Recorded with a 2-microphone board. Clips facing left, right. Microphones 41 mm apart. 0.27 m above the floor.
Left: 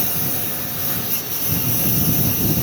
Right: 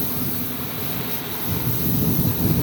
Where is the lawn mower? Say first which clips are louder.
Even; 80° left; by 2.6 s 90° left.